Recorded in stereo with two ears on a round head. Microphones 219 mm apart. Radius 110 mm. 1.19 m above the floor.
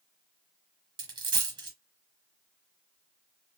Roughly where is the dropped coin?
Centre.